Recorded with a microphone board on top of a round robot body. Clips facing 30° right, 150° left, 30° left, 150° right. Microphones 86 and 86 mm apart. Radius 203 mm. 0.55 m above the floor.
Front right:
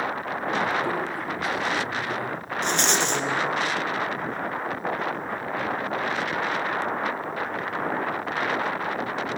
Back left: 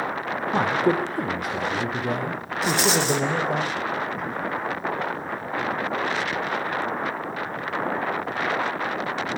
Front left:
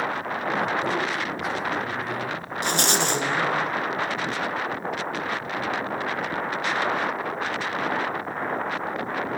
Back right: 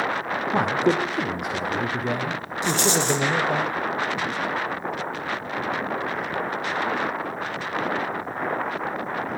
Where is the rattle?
65° left, 1.7 m.